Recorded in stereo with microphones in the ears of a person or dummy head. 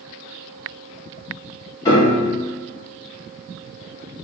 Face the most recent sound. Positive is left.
turn(degrees=30)  # may be behind; listen again after turning